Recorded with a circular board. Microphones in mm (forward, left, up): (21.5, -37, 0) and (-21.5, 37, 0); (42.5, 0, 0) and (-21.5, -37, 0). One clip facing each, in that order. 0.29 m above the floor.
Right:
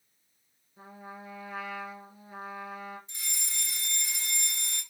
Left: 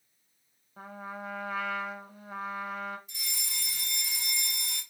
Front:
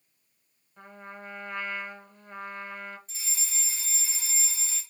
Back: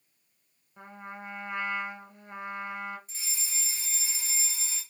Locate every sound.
0.8 s a trumpet: 135° left, 0.6 m
3.1 s a fire alarm: 70° right, 2.5 m